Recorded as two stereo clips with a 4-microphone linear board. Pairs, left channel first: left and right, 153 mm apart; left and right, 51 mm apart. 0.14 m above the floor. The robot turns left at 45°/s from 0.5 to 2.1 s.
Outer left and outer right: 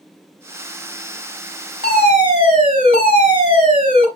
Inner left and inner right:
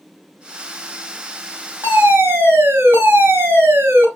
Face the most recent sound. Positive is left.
turn(degrees=-35)  # may be behind; listen again after turning